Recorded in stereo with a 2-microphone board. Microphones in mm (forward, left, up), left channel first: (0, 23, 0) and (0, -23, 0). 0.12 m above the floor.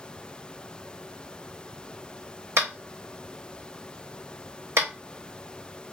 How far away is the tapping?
About 1.1 m.